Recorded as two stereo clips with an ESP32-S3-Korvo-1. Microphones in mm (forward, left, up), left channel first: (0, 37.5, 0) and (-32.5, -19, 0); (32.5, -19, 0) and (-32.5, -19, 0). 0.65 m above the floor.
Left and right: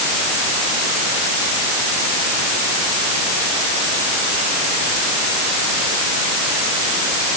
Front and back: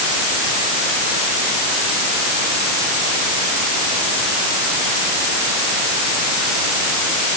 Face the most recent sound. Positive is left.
No sound to turn to.